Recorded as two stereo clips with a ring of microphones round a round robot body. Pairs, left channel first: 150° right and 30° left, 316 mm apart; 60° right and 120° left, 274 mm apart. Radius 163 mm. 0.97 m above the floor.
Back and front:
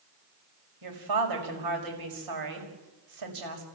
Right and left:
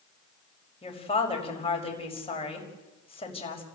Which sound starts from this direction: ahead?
A woman speaking, at 0.8 s.